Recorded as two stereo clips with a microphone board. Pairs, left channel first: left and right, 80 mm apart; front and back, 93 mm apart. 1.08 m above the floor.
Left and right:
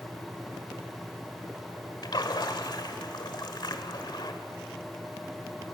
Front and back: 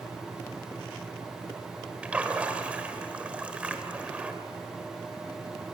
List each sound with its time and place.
2.0 s a splash: 105° left, 1.5 m